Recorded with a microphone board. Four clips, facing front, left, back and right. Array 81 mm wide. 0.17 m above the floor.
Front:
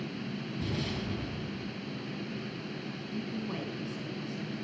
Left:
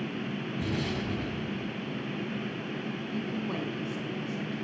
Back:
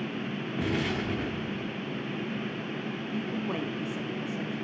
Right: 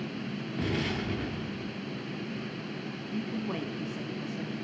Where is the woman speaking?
Straight behind, 1.2 m.